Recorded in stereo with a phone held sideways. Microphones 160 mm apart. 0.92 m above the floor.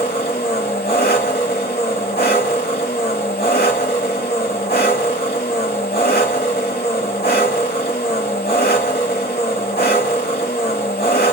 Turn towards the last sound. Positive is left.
turn(degrees=80)